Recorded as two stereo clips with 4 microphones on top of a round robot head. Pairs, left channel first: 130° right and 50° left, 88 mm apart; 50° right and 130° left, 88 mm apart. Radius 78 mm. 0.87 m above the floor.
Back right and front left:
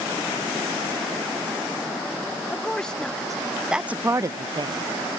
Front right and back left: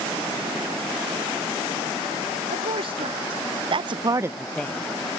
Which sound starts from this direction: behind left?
A woman speaking, at 2.5 s.